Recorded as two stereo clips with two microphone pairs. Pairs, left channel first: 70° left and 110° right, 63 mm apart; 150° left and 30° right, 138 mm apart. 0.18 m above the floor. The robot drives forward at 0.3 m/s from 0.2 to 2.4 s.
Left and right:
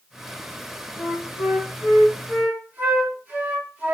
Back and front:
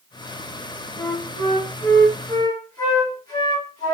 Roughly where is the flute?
Behind right.